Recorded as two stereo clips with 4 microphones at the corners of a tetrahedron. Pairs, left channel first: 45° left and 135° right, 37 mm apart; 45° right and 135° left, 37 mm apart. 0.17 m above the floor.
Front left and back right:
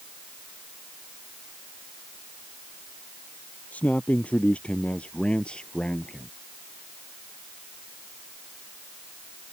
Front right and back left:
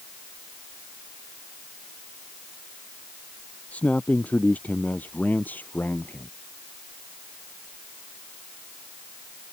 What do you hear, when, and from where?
3.7 s a man speaking: straight ahead; by 6.3 s 25° right